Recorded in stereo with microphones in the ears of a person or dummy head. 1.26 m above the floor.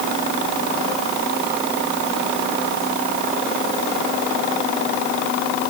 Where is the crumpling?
I don't hear crumpling.